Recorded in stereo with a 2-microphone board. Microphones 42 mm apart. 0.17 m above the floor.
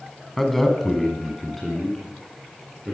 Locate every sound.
0.4 s a man speaking: 5° left (ahead or behind), 1.2 m